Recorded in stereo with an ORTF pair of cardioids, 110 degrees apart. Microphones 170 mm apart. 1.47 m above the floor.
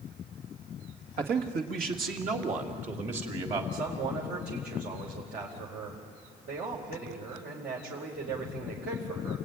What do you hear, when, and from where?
1.2 s a man speaking: 70° right, 2.5 m; by 3.6 s 35° right, 3.5 m
3.7 s a man speaking: 65° right, 5 m